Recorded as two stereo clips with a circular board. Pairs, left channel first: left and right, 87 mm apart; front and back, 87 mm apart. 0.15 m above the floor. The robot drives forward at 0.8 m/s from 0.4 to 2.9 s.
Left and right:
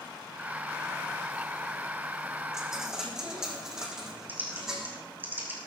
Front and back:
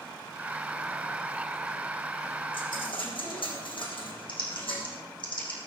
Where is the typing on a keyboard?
20° right, 5.5 m.